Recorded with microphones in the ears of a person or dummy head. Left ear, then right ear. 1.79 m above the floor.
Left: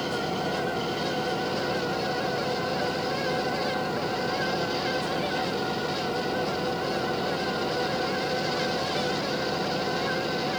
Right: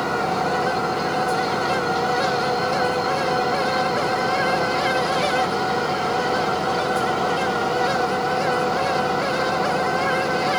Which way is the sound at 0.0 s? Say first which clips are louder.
Right 7 dB; 40° right (ahead or behind).